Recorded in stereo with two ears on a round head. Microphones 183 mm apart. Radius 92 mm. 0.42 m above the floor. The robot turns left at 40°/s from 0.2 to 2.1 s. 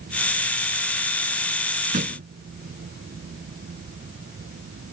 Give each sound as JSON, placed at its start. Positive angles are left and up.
{"t": 1.9, "sound": "a thud", "side_deg": -40}